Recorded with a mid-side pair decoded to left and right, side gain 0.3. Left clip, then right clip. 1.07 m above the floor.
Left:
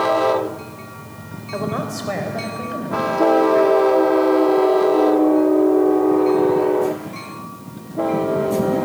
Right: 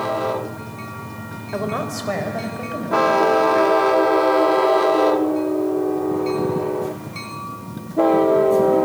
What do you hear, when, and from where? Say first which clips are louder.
1.5 s a woman speaking: even; 20° right, 3.5 m; by 3.7 s 5° right, 7 m